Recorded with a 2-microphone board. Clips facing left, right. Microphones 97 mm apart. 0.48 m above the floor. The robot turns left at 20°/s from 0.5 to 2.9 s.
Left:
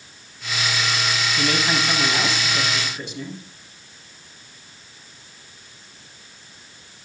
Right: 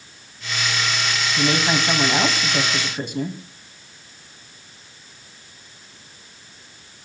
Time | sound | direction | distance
1.4 | a woman speaking | 25° right | 3 m